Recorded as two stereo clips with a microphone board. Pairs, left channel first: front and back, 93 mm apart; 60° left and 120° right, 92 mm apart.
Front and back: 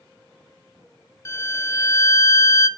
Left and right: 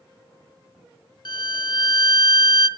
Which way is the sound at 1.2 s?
50° left.